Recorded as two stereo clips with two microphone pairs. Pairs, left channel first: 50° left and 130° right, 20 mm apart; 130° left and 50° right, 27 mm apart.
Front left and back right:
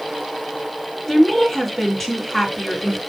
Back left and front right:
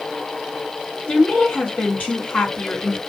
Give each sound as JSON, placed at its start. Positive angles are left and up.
{"t": 1.1, "sound": "a woman speaking", "azimuth_deg": 140, "distance_m": 3.0}